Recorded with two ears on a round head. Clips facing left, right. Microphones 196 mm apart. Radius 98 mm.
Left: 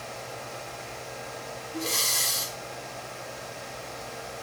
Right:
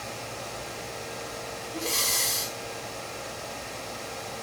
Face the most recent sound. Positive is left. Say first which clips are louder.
# even
turn(degrees=0)  # may be behind; listen again after turning